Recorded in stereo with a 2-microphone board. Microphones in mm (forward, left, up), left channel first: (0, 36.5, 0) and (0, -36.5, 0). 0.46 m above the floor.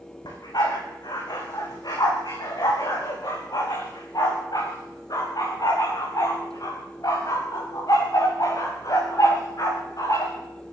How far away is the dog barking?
About 7.5 m.